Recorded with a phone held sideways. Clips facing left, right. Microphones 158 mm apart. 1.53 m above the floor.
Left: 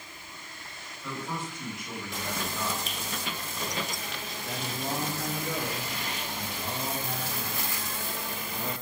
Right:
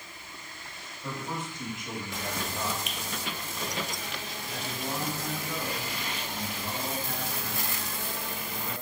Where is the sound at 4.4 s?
85° left, 3 m.